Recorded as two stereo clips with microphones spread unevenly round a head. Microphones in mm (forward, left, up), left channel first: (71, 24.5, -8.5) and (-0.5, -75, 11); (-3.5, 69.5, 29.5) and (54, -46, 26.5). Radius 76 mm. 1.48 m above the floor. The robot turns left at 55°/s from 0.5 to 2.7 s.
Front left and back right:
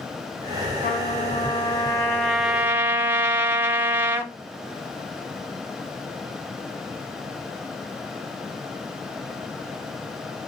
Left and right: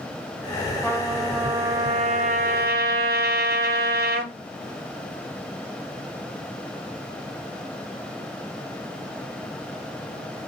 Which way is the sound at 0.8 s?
50° left.